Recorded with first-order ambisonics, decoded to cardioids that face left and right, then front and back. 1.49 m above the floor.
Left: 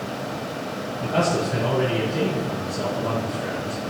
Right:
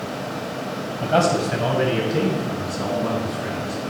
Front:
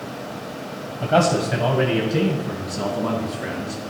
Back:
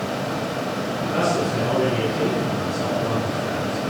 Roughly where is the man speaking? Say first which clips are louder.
Right 4 dB, front 4 dB; ahead right.